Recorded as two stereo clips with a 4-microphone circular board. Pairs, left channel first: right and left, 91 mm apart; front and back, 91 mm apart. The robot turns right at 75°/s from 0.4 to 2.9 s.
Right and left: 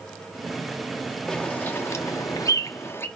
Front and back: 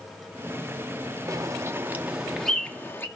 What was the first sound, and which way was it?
A bird, 170° right.